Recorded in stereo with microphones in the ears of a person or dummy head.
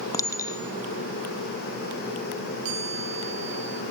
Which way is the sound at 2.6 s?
45° right (ahead or behind).